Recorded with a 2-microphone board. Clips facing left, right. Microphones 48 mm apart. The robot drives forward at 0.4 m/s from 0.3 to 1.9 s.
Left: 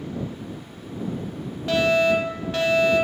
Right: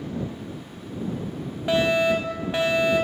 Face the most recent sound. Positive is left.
turn(degrees=-20)  # may be behind; listen again after turning